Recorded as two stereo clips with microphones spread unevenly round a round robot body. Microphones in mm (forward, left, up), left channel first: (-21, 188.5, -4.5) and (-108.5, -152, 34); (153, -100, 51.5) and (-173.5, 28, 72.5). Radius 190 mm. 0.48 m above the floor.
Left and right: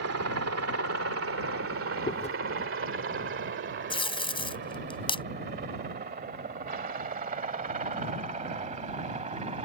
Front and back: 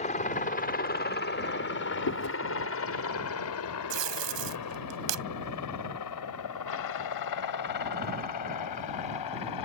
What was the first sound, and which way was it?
A helicopter, 75° right.